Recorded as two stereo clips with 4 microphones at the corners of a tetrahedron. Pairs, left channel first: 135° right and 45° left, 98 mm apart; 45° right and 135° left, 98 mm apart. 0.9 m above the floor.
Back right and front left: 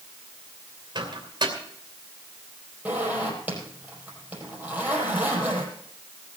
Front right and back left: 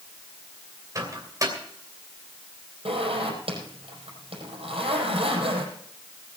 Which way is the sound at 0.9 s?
80° left.